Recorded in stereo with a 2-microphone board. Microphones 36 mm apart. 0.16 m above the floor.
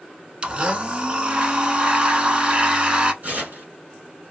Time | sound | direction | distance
0.4 | a blender | 30° right (ahead or behind) | 0.5 m
3.2 | tearing paper | 45° right (ahead or behind) | 1.9 m